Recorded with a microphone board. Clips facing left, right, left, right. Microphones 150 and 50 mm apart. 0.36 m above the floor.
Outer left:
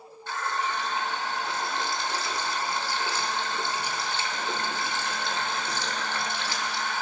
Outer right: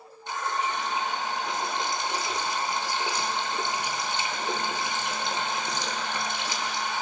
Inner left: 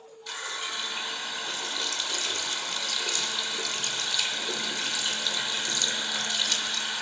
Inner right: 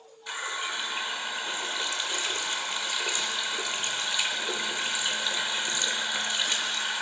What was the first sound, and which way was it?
A running tap, 20° right (ahead or behind).